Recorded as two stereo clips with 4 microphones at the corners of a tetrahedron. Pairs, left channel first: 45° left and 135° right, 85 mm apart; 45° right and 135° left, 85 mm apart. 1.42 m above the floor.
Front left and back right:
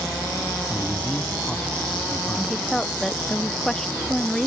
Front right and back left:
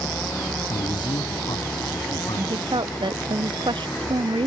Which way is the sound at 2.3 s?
130° left.